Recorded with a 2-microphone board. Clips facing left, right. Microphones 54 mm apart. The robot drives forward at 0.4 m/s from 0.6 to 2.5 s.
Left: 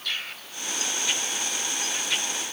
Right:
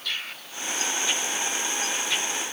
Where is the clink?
No clink in this recording.